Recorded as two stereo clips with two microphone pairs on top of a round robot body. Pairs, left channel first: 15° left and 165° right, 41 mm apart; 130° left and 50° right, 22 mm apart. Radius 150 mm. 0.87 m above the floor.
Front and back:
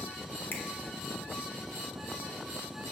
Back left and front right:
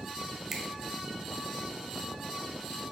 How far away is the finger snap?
About 0.9 m.